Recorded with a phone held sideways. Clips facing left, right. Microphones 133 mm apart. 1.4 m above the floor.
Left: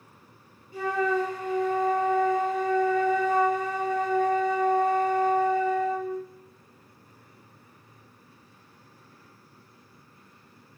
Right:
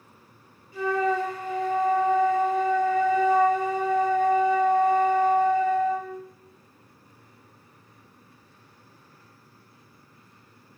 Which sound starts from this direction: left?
A flute, at 0.7 s.